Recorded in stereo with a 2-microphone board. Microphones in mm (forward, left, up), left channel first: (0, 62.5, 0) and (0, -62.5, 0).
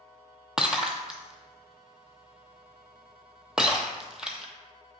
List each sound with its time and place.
0.6 s breaking glass: 5° right (ahead or behind), 0.5 m